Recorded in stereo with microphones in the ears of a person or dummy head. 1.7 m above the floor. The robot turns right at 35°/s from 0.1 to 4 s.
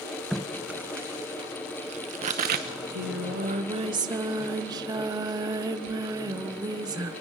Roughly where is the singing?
Right.